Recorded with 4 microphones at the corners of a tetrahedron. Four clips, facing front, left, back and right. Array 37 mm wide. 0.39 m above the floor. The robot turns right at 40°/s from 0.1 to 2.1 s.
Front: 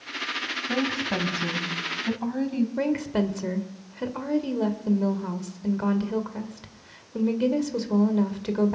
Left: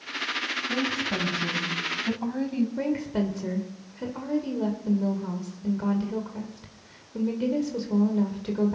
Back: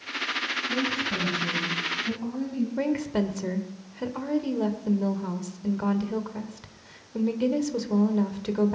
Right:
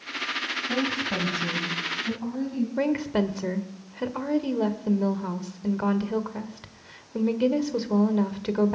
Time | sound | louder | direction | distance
0.7 | a woman speaking | right 1 dB, front 4 dB | 20° right | 2.5 m
2.8 | a woman speaking | right 3 dB, back 1 dB | 75° right | 1.2 m